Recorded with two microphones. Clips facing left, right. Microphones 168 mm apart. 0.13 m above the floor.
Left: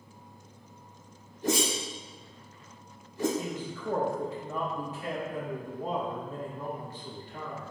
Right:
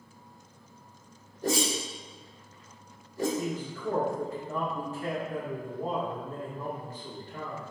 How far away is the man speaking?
About 1.8 m.